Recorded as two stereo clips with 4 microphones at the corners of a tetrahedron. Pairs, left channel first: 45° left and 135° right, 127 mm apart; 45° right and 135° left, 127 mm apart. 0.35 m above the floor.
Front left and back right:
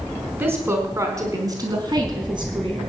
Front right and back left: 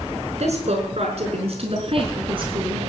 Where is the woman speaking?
155° left, 4.5 m; by 2.9 s 175° right, 5 m.